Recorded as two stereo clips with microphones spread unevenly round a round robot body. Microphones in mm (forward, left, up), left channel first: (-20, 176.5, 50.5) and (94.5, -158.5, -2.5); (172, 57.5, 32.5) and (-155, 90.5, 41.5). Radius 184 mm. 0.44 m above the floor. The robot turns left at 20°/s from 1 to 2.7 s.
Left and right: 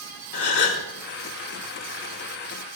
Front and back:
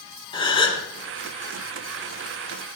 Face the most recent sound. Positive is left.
turn(degrees=35)